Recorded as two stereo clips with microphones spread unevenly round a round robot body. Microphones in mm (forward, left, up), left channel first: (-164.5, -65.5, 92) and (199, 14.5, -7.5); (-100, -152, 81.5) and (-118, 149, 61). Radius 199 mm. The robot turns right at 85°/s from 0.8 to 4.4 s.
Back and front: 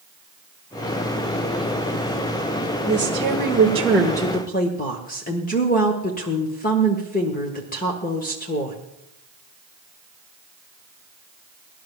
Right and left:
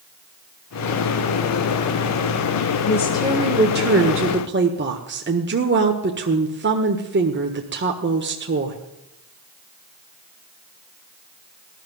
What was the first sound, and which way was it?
A woman speaking, 15° right.